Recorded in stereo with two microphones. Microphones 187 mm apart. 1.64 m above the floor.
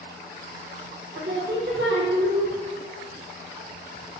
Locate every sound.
1.1 s singing: 75° right (ahead or behind), 0.6 m